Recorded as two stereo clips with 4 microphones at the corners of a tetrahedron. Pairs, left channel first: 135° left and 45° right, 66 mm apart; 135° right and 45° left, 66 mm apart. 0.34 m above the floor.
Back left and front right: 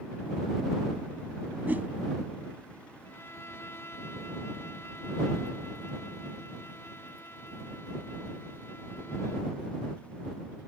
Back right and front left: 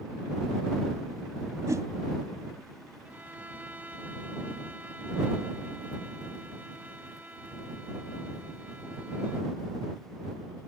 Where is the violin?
100° left.